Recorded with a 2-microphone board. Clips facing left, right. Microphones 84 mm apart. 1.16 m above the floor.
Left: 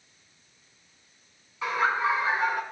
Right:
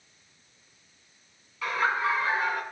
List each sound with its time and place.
1.6 s laughter: 25° left (ahead or behind), 6.5 m